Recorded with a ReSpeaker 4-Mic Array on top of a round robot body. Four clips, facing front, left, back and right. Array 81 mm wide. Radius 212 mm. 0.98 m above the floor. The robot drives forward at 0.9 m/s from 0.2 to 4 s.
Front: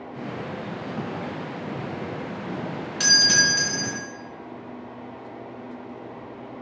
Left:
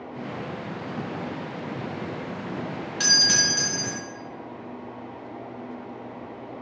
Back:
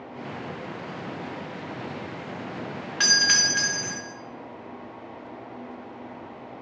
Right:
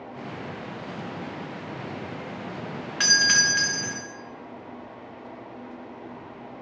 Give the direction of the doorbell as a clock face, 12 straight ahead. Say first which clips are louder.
Right 5 dB, front 2 dB; 4 o'clock.